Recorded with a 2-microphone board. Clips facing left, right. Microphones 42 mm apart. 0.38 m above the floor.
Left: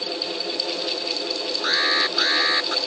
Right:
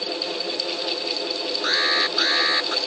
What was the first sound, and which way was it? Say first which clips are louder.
An alarm: even; 5° left (ahead or behind).